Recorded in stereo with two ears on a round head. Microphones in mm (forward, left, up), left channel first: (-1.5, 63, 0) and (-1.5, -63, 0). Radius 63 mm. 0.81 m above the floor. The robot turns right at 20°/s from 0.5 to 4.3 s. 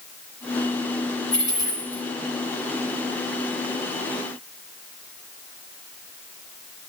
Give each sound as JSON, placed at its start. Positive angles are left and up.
{"t": 1.3, "sound": "a dropped coin", "side_deg": 35, "distance_m": 6.0}